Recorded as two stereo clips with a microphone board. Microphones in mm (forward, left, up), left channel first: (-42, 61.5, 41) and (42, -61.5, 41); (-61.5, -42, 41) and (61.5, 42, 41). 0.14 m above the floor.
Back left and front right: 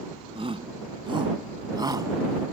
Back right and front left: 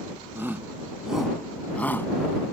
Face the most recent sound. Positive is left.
turn(degrees=-90)